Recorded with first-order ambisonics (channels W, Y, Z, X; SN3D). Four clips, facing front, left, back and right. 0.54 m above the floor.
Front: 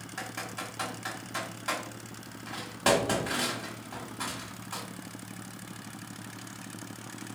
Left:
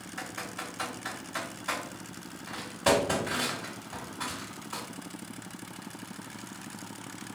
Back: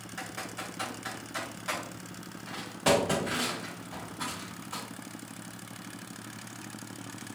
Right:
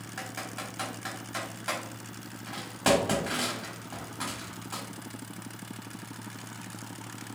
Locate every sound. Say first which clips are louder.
0.2 s typing on a keyboard: even, front 1 dB; 70° right, 1.5 m